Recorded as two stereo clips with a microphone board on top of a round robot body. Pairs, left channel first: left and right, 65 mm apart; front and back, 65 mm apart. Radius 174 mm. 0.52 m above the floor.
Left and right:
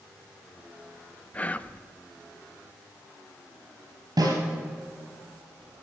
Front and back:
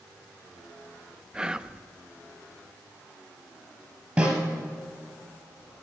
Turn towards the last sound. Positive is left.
turn(degrees=-115)